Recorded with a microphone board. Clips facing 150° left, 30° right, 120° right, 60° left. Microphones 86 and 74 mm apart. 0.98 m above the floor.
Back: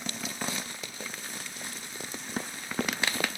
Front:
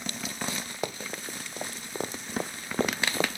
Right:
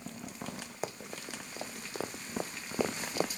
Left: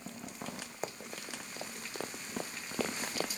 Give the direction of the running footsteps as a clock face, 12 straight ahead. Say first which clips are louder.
Front 6 dB, right 2 dB; 1 o'clock.